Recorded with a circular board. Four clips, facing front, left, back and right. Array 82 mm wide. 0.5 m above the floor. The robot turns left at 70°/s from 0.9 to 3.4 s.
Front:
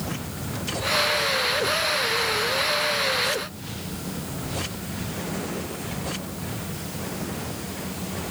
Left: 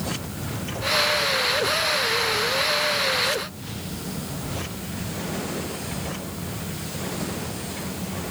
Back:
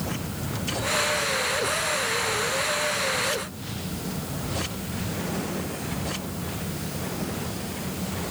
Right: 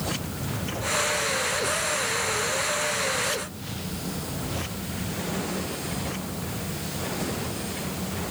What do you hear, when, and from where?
Only background noise.